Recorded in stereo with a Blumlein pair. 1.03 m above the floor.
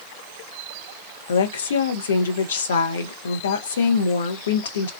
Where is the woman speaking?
65° left, 0.7 m.